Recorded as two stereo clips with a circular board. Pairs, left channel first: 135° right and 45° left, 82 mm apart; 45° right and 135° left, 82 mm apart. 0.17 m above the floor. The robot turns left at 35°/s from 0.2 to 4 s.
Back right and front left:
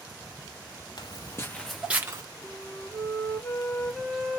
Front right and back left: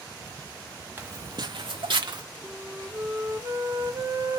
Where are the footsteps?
160° right, 0.7 m; by 2.2 s 95° left, 0.8 m.